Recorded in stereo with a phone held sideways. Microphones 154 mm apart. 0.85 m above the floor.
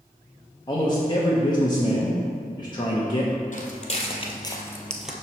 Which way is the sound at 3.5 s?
55° left (ahead or behind).